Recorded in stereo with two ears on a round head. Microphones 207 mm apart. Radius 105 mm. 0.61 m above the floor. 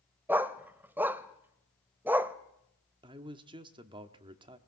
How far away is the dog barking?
About 0.8 m.